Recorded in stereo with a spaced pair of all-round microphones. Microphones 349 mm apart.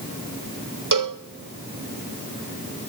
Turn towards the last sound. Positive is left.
turn(degrees=-65)  # may be behind; listen again after turning